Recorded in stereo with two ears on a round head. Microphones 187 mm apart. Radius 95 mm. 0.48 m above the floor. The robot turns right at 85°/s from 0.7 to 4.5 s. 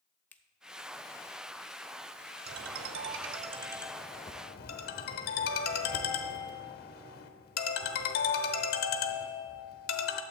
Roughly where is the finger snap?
Centre.